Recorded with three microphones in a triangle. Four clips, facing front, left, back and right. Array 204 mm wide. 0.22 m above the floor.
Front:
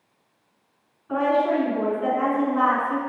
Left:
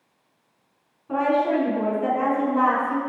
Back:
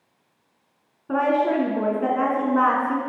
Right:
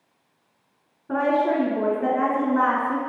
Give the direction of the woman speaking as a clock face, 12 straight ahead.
5 o'clock.